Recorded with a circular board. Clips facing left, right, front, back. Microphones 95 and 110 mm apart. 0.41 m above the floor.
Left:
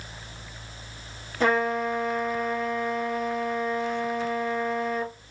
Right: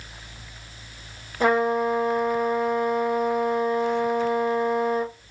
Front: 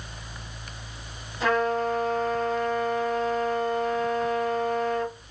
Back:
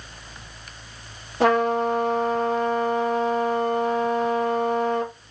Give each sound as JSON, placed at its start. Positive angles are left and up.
{"t": 1.4, "sound": "a trumpet", "azimuth_deg": -165, "distance_m": 2.0}